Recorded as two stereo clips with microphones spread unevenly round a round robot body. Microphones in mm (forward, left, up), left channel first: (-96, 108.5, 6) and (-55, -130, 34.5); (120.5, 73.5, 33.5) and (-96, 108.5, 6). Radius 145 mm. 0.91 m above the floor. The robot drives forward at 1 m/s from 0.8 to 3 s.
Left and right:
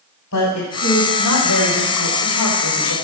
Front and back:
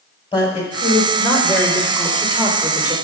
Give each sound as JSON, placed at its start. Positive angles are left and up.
{"t": 0.3, "sound": "a woman speaking", "azimuth_deg": 60, "distance_m": 4.0}